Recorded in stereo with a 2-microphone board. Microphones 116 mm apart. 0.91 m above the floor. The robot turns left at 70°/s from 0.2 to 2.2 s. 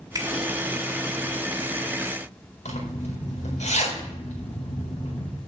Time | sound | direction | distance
0.1 | a finger snap | 30° right (ahead or behind) | 1.3 m
2.6 | a zipper | 75° left (ahead or behind) | 4 m